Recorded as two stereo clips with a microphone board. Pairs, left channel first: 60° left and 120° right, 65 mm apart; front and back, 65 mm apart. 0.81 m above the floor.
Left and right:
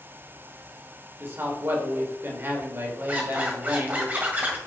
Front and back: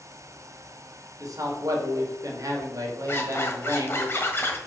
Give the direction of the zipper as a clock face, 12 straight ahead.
2 o'clock.